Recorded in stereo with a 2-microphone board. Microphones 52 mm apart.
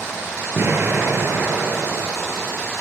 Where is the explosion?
45° right (ahead or behind), 2.5 m.